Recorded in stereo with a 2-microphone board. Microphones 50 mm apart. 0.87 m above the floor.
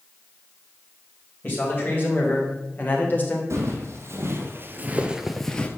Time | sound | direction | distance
1.4 | a man speaking | 35° left (ahead or behind) | 3.5 m
3.5 | footsteps | 60° right (ahead or behind) | 2.5 m